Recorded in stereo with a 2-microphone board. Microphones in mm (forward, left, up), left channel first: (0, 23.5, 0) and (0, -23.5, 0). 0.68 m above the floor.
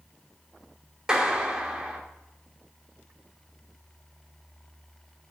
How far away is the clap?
About 1.6 m.